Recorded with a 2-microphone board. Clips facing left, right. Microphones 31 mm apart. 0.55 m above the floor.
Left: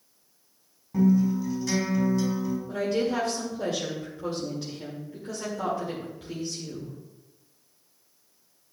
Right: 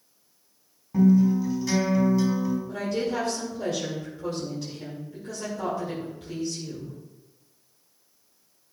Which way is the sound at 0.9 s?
5° right (ahead or behind).